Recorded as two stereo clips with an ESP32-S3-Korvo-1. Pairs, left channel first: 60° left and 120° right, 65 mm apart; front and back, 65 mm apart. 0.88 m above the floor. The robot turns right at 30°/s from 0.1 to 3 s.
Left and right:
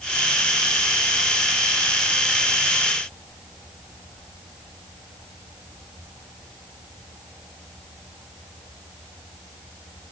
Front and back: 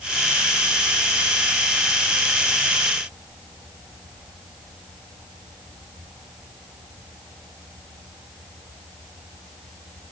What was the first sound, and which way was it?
Only background noise.